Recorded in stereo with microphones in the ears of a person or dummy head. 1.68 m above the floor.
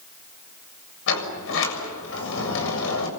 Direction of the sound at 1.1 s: 70° left (ahead or behind).